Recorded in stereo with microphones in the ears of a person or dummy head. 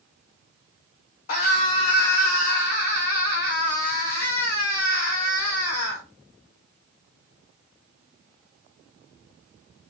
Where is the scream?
45° left (ahead or behind), 0.9 m.